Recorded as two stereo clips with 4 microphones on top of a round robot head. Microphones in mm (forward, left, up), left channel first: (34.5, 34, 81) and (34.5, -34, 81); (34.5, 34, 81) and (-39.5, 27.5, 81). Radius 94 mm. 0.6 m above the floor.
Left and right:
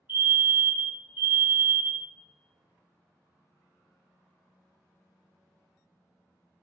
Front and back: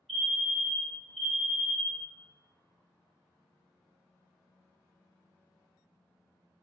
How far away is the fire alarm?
About 1.8 m.